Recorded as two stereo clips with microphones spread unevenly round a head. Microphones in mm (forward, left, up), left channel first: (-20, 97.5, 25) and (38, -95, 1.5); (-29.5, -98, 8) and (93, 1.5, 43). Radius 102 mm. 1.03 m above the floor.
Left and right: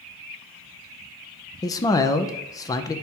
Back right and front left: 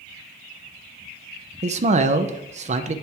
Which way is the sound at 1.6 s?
40° left.